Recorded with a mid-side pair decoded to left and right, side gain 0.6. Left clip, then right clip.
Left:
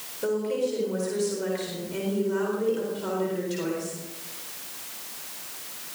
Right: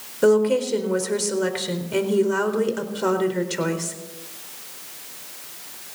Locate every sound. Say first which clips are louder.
0.2 s a woman speaking: right 9 dB; 55° right, 4 m